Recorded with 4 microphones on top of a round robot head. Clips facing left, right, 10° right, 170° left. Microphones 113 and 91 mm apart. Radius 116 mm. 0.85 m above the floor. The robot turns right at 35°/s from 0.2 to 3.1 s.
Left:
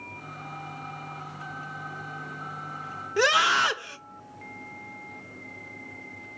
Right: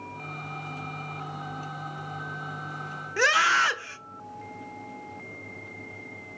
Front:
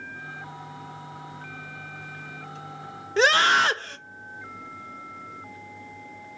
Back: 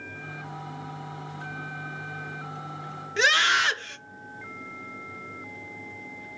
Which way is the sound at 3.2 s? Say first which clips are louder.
Left 1 dB, front 4 dB; 25° left.